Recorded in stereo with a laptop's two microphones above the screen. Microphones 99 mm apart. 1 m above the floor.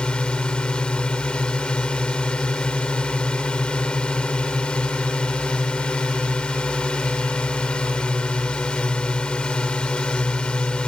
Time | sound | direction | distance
0.0 | a drone | 10° left (ahead or behind) | ?